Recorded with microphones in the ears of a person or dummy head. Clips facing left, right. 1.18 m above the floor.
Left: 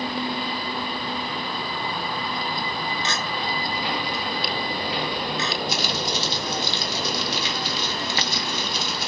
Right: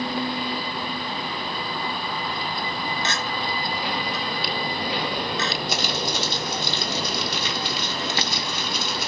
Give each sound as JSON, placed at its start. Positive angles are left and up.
{"t": 3.0, "sound": "a clink", "side_deg": -50, "distance_m": 0.7}
{"t": 5.7, "sound": "crumpling", "side_deg": -50, "distance_m": 0.9}